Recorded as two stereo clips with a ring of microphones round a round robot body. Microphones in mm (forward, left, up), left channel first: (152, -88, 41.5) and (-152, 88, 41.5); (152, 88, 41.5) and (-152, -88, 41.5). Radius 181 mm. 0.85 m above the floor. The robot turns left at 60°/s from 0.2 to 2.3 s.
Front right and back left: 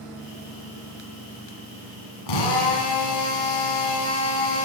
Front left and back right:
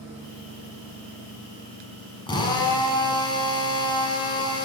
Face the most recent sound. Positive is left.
turn(degrees=-50)